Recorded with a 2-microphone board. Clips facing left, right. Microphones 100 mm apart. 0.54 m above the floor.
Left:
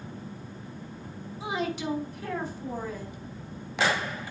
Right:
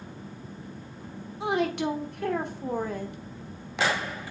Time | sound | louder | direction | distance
1.4 | a woman speaking | right 5 dB | 55° right (ahead or behind) | 1.2 m